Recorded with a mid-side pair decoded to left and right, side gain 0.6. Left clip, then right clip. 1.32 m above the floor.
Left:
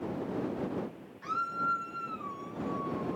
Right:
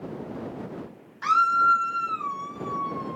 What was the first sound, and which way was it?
A scream, 65° right.